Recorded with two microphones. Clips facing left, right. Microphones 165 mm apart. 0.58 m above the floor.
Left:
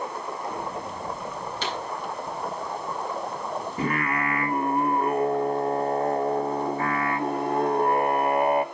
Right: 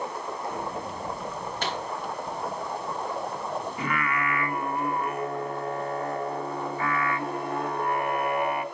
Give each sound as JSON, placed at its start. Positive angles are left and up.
{"t": 1.6, "sound": "a pop", "side_deg": -50, "distance_m": 4.0}
{"t": 3.8, "sound": "singing", "side_deg": 35, "distance_m": 0.6}